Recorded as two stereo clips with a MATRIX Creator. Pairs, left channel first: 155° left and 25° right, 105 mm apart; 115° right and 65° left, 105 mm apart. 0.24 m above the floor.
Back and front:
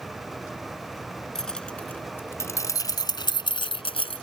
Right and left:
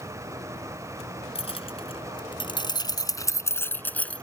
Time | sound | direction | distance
1.4 | keys jangling | 115° right | ?